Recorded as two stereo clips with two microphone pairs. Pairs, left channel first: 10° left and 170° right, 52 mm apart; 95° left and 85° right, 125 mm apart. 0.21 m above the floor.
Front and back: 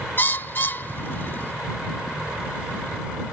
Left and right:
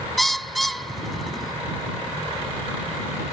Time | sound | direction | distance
0.2 | a bird | 5° left | ?